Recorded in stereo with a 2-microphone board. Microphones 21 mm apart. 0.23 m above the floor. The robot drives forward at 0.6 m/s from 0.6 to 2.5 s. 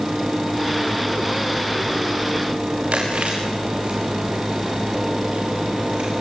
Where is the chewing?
85° right, 6.5 m.